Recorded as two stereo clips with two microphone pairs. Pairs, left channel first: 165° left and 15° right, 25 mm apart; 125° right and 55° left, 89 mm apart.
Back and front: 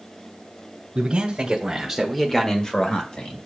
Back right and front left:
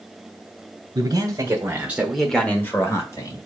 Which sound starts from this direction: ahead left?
A man speaking, at 0.9 s.